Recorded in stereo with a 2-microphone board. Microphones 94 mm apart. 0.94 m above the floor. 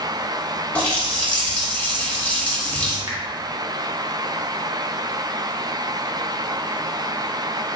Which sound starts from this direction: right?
A finger snap, at 3.1 s.